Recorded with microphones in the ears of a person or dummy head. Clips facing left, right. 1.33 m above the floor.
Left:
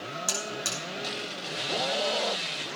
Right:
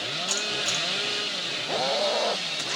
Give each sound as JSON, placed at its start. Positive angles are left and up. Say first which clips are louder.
{"t": 0.3, "sound": "a buzzer", "louder": "right 1 dB", "side_deg": 50, "distance_m": 5.0}